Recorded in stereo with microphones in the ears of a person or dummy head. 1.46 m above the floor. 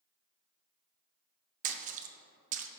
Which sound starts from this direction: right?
A splash, at 1.6 s.